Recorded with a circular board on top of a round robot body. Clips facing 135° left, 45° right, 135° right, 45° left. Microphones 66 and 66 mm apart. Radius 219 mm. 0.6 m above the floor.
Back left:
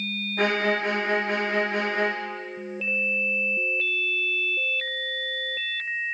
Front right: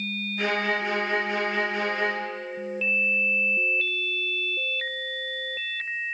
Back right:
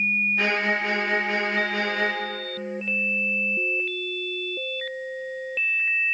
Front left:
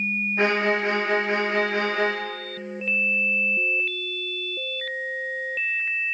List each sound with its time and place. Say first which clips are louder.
0.4 s a violin: back left 3 dB, front left 6 dB; 105° left, 2 m